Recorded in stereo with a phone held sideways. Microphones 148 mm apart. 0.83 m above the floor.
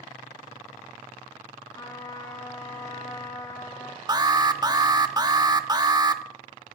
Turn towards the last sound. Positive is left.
turn(degrees=-30)  # may be behind; listen again after turning